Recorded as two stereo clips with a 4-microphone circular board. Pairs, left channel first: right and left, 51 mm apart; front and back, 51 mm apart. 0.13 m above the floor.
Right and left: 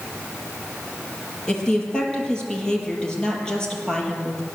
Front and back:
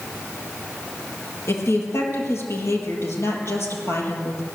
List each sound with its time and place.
1.5 s a woman speaking: 15° right, 4 m